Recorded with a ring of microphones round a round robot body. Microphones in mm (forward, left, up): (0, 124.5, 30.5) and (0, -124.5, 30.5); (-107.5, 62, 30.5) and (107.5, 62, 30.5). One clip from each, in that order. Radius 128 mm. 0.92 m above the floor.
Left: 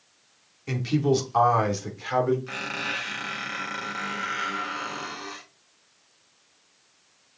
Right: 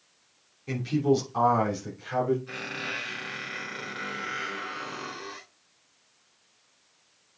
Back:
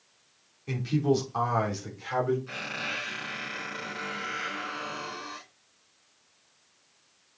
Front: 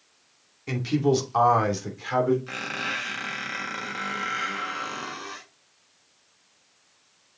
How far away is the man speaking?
About 3 m.